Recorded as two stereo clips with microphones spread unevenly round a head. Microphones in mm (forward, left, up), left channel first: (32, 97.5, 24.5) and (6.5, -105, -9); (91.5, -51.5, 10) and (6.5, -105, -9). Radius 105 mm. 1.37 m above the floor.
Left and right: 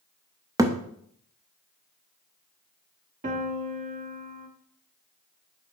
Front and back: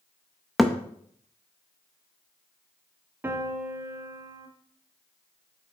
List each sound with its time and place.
0.6 s a thud: 25° right, 0.6 m
3.2 s a piano: 85° right, 0.9 m